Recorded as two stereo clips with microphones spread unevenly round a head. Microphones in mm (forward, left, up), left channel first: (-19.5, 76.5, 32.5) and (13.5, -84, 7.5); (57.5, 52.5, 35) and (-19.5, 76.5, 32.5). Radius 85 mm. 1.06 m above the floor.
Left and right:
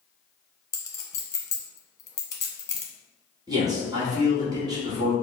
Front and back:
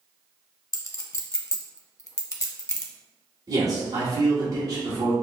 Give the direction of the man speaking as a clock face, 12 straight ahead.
5 o'clock.